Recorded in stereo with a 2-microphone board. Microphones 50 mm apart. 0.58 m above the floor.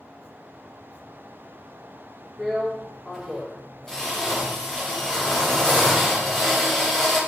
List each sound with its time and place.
2.4 s a drill: 10° left (ahead or behind), 3.5 m